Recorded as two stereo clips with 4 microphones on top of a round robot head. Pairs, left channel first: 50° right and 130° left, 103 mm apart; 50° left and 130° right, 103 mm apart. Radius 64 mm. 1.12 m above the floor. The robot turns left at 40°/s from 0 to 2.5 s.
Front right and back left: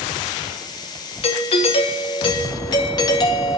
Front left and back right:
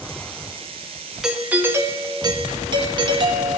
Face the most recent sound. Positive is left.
turn(degrees=-95)